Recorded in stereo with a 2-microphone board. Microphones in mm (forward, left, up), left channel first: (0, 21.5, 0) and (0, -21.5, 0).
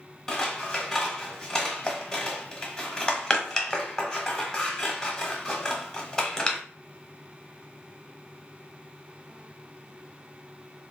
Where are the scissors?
15° left (ahead or behind), 0.7 m.